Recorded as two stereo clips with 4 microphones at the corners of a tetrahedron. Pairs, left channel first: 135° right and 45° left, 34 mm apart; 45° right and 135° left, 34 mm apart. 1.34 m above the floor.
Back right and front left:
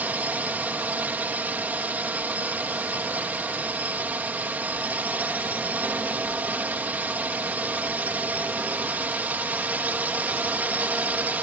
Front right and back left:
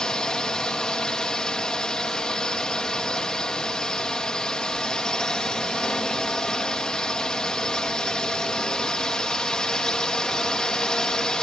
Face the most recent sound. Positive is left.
turn(degrees=20)